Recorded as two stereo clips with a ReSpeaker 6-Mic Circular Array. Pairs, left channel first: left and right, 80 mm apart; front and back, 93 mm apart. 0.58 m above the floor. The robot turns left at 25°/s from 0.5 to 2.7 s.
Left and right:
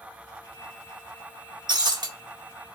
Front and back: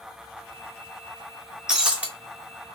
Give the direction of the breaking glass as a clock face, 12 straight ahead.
3 o'clock.